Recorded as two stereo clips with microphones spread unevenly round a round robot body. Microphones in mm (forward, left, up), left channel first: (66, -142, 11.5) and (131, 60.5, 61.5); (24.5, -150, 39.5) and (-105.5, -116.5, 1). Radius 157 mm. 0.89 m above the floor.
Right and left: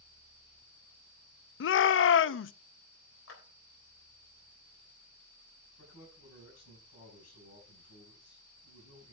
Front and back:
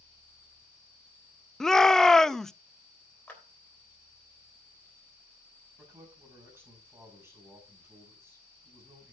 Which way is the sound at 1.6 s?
110° right.